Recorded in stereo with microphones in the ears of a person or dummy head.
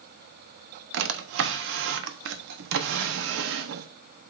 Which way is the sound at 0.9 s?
55° right (ahead or behind).